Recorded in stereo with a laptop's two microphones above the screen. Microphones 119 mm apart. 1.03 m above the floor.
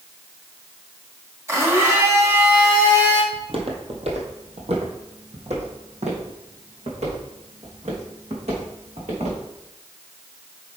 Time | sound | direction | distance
1.5 | a blender | 25° right (ahead or behind) | 1.4 m
3.3 | footsteps | 55° right (ahead or behind) | 1.6 m